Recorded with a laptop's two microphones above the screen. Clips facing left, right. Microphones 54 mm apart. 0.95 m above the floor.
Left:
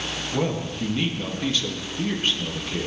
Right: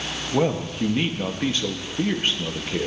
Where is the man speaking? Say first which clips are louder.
Right 4 dB; 30° right (ahead or behind), 1.6 m.